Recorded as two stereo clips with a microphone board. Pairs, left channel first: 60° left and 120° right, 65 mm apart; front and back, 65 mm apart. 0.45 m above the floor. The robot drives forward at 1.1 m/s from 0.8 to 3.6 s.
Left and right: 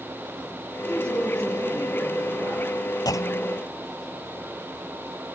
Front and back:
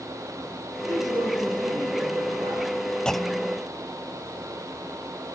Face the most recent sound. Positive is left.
turn(degrees=130)